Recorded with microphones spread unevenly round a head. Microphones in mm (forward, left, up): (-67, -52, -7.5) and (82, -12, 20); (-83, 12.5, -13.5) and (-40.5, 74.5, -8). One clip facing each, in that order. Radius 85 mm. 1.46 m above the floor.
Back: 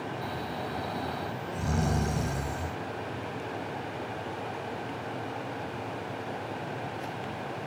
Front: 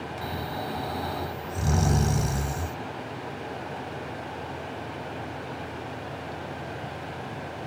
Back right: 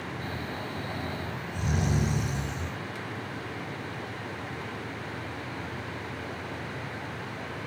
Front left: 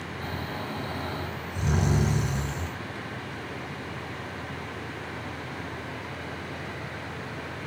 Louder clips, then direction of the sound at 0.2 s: Front 2 dB, front left 4 dB; 10° right.